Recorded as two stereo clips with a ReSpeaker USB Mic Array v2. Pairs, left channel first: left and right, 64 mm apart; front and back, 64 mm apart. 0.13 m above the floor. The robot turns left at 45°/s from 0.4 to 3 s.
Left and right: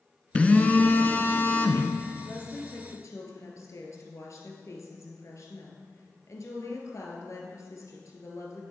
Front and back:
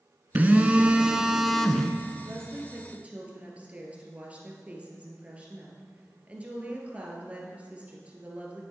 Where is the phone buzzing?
145° left, 0.9 m; by 1.9 s 75° left, 0.9 m.